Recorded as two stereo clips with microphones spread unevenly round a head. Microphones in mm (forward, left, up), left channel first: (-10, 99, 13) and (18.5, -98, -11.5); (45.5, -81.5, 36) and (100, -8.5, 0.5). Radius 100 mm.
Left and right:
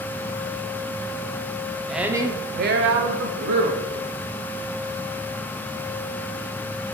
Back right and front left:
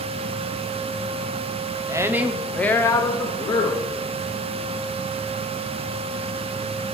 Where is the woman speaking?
5° left, 0.8 m; by 3.9 s 90° right, 1.3 m.